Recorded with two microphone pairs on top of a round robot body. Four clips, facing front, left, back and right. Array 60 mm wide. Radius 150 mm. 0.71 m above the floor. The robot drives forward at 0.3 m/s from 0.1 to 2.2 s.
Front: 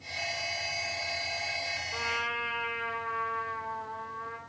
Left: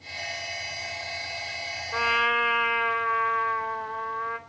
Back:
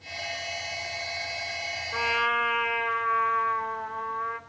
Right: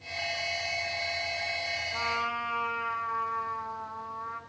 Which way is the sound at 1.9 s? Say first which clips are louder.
Left 10 dB, back 9 dB; 110° left.